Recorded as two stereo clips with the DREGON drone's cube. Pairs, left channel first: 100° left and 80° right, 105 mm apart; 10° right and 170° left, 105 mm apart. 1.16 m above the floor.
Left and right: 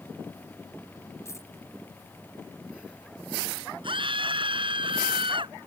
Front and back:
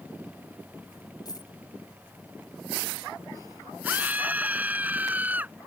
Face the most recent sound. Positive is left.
turn(degrees=-115)